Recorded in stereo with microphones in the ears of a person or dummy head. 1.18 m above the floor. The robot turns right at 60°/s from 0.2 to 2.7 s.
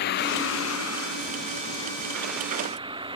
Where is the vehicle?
55° left; by 3.2 s 155° right.